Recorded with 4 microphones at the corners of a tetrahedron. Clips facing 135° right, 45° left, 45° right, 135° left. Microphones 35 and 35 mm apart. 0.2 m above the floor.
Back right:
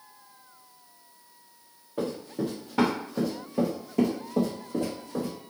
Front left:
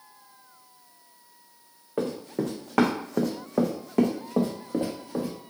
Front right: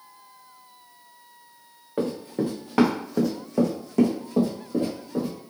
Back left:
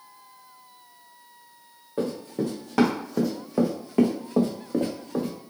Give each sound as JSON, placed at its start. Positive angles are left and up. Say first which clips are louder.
{"t": 2.0, "sound": "running footsteps", "louder": "front left 2 dB, front right 1 dB", "azimuth_deg": 15, "distance_m": 1.2}